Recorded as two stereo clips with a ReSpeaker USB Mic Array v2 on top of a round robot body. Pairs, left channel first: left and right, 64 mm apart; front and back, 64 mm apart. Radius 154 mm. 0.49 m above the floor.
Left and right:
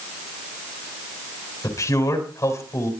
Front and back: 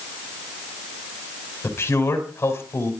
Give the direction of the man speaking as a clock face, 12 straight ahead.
10 o'clock.